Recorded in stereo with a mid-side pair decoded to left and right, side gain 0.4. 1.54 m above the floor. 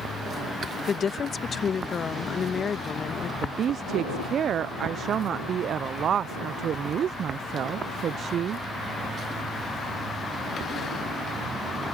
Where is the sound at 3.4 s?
60° right.